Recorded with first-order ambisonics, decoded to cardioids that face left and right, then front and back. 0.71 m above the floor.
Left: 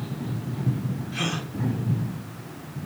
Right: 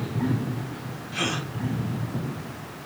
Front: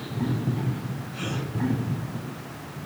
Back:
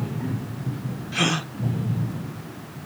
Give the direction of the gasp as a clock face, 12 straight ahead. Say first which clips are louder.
Right 2 dB, back 11 dB; 6 o'clock.